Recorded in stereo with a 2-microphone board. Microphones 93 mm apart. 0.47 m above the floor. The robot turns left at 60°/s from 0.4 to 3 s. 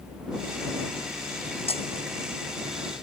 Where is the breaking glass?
75° left (ahead or behind); by 1.9 s 85° left.